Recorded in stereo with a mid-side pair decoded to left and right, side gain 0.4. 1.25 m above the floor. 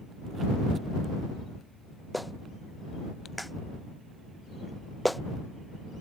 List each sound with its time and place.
2.1 s a clap: 5° left